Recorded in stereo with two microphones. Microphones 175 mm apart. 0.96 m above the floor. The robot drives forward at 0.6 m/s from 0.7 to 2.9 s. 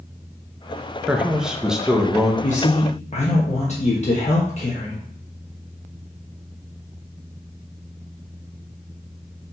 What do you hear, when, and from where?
1.1 s a man speaking: 5° right (ahead or behind), 0.8 m
2.4 s a man speaking: 45° left (ahead or behind), 1.1 m; by 5.1 s 40° left (ahead or behind), 1.2 m